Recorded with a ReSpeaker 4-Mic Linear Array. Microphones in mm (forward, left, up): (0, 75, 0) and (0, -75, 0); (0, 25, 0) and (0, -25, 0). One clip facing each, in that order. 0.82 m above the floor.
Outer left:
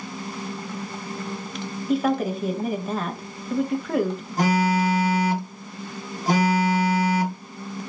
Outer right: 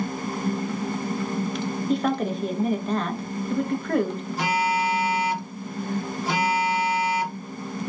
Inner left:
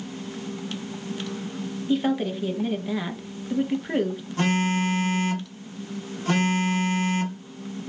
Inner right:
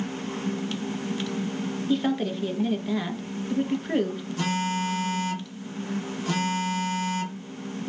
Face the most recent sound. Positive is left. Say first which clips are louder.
# outer left 4 dB, inner left 4 dB
turn(degrees=40)  # may be behind; listen again after turning